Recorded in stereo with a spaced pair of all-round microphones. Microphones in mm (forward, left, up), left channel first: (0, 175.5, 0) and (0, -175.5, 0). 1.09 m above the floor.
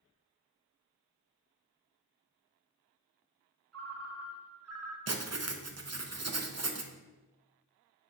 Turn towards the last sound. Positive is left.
turn(degrees=-45)  # may be behind; listen again after turning